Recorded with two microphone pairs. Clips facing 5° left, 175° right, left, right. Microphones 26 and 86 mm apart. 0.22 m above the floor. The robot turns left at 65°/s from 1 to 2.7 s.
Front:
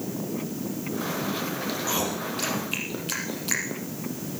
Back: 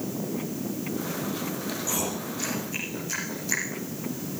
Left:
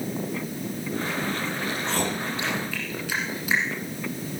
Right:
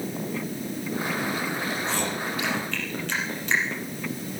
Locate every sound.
1.7 s chewing: 75° left, 4.5 m; by 3.8 s 10° left, 4.5 m